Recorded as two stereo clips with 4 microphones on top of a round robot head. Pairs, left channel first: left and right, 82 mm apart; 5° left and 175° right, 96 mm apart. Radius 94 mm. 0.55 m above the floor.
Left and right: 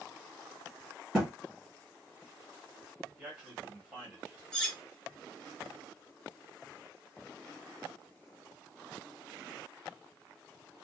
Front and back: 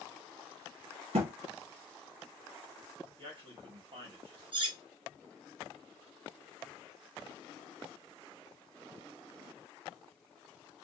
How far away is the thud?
About 1.2 m.